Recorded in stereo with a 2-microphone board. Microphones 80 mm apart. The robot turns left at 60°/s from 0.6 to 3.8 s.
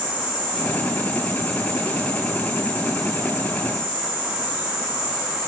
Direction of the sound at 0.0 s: 105° left.